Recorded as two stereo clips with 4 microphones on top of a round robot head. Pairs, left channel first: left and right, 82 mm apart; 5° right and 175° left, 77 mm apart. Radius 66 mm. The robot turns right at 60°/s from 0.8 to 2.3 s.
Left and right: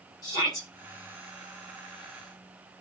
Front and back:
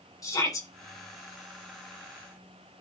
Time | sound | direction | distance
0.2 | a shout | 40° left | 4.5 m